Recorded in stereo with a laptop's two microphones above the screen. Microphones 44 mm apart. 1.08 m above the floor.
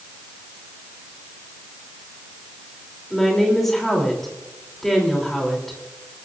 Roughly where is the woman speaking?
Centre.